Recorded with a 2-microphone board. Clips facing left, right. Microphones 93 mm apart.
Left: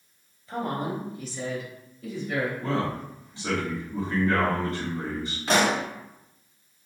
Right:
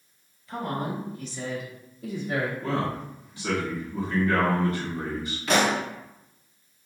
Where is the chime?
No chime in this recording.